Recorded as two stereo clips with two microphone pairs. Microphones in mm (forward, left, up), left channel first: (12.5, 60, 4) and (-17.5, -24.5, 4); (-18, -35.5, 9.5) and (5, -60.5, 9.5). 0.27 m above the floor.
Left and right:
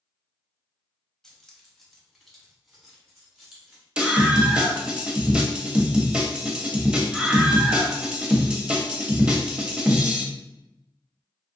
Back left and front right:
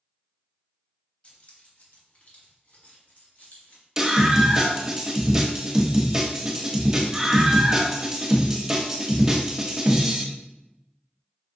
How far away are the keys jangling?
About 1.1 m.